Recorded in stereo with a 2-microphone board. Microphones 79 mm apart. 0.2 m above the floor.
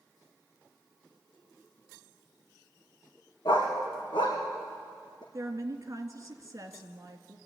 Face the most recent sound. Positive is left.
turn(degrees=-40)  # may be behind; listen again after turning